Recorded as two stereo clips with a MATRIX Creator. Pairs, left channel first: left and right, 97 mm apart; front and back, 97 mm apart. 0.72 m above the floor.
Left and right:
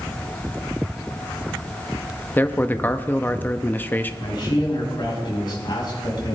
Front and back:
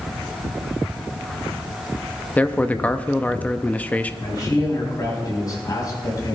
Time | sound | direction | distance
2.4 | a man speaking | 50° left | 0.6 m
4.2 | a man speaking | 50° left | 4.5 m